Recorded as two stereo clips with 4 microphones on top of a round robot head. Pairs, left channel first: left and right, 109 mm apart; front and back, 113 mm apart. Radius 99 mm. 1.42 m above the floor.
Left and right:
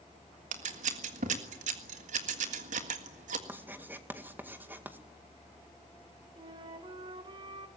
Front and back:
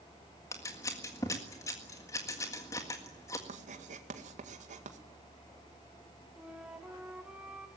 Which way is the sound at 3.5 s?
165° right.